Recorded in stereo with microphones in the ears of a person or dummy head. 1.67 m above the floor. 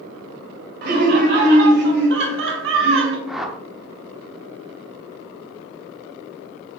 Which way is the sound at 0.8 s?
70° right (ahead or behind).